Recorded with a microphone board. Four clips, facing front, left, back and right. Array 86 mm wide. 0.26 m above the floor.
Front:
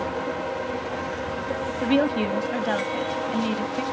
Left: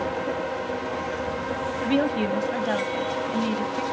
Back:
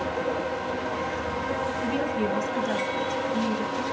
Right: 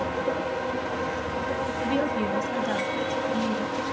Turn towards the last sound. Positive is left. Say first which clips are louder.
# left 4 dB, front 9 dB
turn(degrees=25)